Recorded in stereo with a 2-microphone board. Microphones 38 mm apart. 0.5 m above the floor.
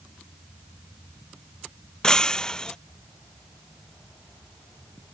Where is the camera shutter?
I don't hear a camera shutter.